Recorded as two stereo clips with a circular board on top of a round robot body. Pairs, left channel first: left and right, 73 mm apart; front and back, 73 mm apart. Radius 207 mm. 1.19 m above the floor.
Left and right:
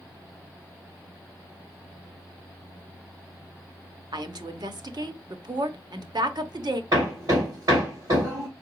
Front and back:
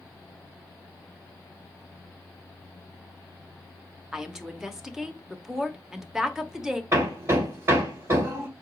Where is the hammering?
130° right, 2.5 m.